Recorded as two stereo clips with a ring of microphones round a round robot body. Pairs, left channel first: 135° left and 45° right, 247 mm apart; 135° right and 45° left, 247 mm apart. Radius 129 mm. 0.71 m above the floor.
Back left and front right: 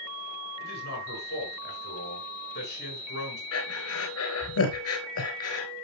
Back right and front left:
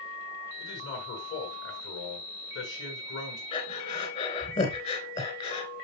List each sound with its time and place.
0.6 s a man speaking: 175° right, 7.5 m
3.5 s breathing: 160° left, 3.5 m